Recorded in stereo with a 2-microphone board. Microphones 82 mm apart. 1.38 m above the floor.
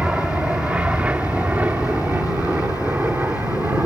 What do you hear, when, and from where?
0.0 s an aircraft: 10° right (ahead or behind); by 3.9 s 25° right (ahead or behind)